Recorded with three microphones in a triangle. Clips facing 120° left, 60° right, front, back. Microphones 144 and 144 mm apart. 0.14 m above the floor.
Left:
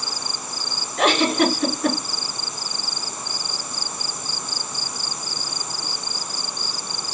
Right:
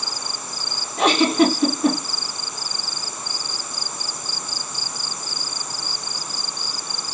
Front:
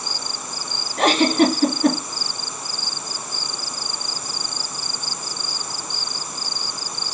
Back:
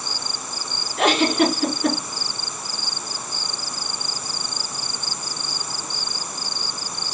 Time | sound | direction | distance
1.0 | a giggle | 5° right | 1.9 m